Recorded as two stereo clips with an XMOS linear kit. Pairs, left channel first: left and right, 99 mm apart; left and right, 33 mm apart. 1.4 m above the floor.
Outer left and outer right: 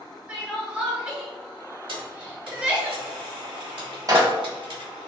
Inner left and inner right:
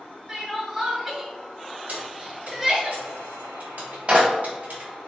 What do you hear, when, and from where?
0.3 s crying: 15° right (ahead or behind), 1.1 m
1.9 s keys jangling: 60° right (ahead or behind), 1.5 m
4.1 s a clap: 35° right (ahead or behind), 1.1 m